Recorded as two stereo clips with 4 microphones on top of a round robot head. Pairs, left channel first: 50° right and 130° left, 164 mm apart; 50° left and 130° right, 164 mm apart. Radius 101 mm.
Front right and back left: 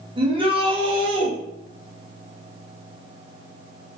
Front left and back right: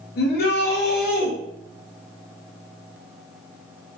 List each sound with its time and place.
0.2 s a shout: 70° left, 1.4 m